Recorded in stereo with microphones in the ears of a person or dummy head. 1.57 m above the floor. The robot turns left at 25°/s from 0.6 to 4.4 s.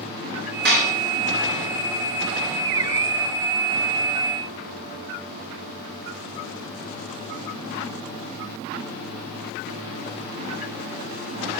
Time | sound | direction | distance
0.7 | dishes clattering | 55° right (ahead or behind) | 3 m